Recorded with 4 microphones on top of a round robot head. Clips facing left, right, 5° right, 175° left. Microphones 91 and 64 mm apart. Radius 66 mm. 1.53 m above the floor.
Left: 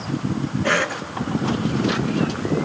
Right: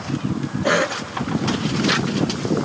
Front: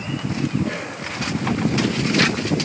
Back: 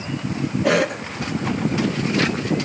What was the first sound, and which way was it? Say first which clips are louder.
A cough: right 3 dB, back 9 dB; 165° right.